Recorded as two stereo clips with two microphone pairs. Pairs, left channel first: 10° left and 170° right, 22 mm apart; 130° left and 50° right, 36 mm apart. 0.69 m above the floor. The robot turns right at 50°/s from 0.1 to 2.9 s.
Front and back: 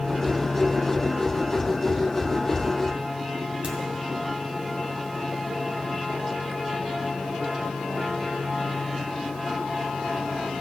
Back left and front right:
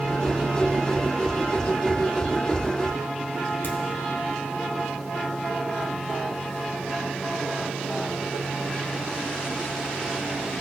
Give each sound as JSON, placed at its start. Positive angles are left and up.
{"t": 3.6, "sound": "a crack", "azimuth_deg": 150, "distance_m": 1.6}